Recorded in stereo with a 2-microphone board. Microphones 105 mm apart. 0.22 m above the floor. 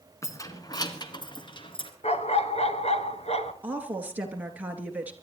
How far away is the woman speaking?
About 3 m.